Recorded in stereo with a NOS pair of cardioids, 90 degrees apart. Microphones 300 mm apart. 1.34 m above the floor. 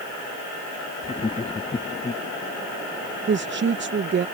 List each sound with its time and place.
1.0 s laughter: 20° left
3.3 s a woman speaking: 40° right